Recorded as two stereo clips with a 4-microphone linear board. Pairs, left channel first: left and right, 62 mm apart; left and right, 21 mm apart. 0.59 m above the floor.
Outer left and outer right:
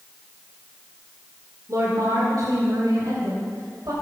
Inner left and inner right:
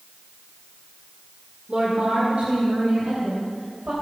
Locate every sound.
1.7 s a woman speaking: 55° right (ahead or behind), 2 m; by 3.9 s 65° right (ahead or behind), 3.5 m